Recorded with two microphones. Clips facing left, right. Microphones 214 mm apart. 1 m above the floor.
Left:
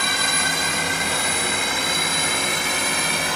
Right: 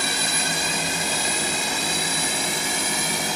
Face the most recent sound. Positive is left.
turn(degrees=70)  # may be behind; listen again after turning